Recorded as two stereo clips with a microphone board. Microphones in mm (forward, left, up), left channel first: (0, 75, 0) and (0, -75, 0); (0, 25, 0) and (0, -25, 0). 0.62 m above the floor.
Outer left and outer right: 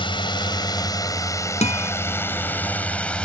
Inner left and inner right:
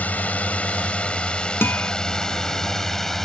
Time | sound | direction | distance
0.0 | a drone | 35° left (ahead or behind) | ?
1.6 | a guitar | 55° left (ahead or behind) | ?